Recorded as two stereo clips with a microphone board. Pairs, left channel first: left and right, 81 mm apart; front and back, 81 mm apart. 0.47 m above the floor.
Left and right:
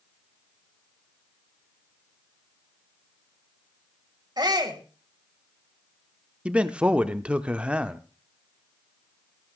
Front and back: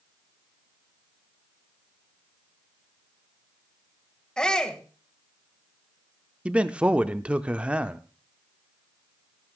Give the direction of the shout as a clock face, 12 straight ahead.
3 o'clock.